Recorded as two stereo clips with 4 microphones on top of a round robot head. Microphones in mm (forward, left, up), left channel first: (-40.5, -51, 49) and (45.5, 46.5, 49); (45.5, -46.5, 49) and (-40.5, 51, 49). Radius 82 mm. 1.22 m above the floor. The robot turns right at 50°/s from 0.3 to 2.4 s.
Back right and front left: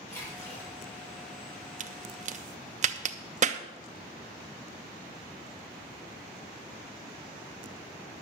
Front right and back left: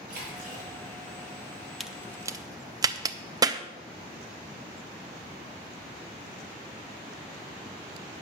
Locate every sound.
0.1 s a splash: 155° left, 6.5 m; by 0.7 s 175° left, 6.5 m
1.8 s a crack: 40° left, 0.7 m; by 3.6 s 70° left, 0.7 m